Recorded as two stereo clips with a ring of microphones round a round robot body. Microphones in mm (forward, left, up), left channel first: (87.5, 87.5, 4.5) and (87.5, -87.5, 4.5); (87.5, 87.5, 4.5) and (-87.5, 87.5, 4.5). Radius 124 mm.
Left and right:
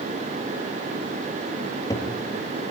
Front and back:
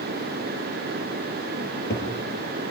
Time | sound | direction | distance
1.6 | a cupboard door | 20° left | 6 m